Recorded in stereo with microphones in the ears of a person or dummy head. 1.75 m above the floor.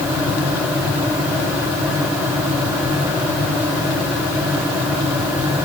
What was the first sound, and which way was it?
Only background noise.